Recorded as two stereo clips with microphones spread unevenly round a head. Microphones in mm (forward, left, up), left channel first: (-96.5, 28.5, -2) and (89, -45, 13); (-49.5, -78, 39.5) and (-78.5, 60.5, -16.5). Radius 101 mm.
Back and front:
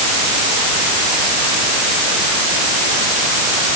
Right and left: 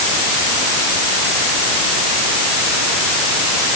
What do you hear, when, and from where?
Only background noise.